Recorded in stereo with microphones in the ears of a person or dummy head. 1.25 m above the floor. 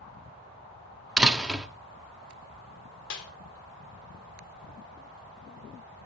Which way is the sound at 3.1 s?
65° left (ahead or behind).